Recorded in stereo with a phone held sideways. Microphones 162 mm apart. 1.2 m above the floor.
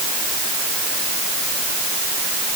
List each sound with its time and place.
Only background noise.